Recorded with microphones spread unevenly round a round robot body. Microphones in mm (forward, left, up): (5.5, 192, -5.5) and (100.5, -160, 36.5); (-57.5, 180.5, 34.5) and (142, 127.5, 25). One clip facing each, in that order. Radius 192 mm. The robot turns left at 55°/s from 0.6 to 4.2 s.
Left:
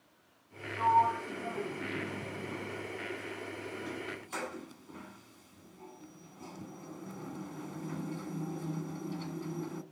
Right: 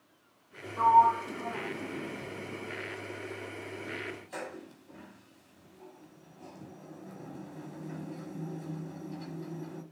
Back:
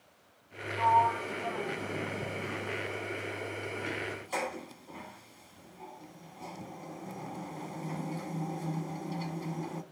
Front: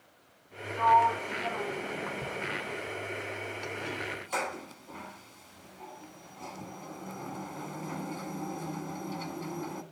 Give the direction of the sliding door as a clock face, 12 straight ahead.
3 o'clock.